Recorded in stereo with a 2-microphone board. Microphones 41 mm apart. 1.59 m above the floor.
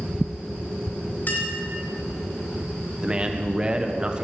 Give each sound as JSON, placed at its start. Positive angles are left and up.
{"t": 1.3, "sound": "a clink", "side_deg": 50, "distance_m": 4.5}
{"t": 3.0, "sound": "a man speaking", "side_deg": -20, "distance_m": 1.3}